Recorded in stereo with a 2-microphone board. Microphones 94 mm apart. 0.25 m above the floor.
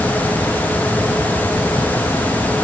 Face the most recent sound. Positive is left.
No sound to turn to.